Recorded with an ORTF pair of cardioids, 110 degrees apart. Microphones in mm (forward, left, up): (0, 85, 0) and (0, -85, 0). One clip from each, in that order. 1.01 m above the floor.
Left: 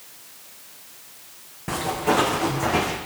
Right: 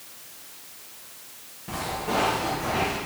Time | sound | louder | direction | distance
1.7 | footsteps | left 6 dB | 65° left | 3 m